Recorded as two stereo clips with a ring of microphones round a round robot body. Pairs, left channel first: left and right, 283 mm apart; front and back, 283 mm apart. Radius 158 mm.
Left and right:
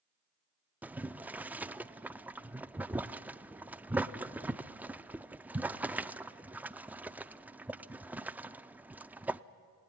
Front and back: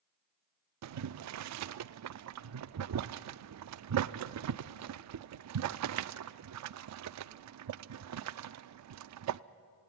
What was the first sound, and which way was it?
Boiling, 175° right.